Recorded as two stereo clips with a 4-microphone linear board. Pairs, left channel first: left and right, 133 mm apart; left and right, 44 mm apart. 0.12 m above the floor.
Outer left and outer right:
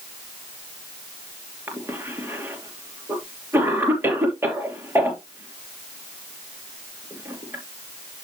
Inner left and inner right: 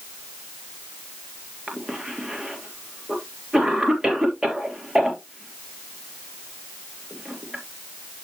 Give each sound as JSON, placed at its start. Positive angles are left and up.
{"t": 1.7, "sound": "a cough", "side_deg": -20, "distance_m": 3.0}